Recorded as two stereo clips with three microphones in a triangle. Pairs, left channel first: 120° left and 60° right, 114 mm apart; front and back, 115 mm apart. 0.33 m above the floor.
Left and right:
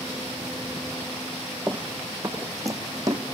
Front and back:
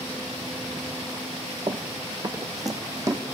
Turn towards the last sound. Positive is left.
turn(degrees=-120)